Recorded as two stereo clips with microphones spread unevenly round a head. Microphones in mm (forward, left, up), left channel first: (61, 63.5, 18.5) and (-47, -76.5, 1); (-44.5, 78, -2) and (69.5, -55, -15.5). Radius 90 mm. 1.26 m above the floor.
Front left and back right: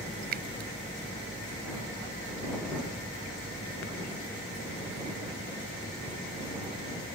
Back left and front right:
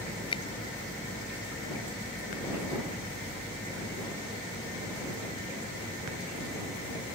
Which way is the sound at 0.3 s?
165° right.